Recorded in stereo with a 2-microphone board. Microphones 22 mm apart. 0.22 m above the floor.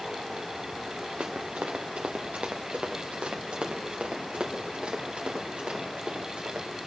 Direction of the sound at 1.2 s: 85° right.